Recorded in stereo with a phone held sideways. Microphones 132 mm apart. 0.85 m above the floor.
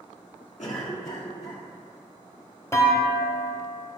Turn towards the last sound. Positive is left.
turn(degrees=25)  # may be behind; listen again after turning